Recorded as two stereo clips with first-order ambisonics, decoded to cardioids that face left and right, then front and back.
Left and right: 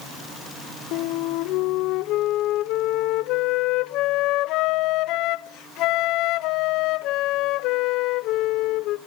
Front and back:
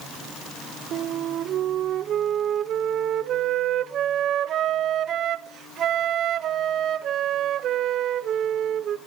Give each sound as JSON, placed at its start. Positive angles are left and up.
{"t": 0.9, "sound": "a flute", "azimuth_deg": 125, "distance_m": 0.7}